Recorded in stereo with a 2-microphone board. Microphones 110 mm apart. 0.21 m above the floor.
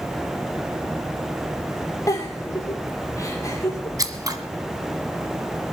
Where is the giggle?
30° left (ahead or behind), 3.5 m.